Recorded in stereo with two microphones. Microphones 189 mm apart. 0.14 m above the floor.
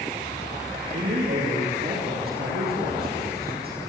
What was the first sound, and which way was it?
A man speaking, 55° right (ahead or behind).